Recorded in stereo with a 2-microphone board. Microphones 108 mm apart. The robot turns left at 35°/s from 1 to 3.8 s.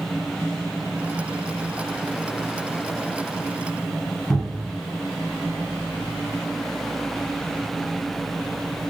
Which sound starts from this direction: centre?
A cupboard door, at 4.3 s.